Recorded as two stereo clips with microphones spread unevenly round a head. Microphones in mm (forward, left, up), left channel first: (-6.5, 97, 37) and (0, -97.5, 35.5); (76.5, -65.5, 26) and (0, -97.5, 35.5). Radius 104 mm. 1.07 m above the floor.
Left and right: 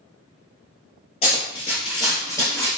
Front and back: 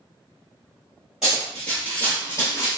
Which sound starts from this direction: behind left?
Running footsteps, at 1.2 s.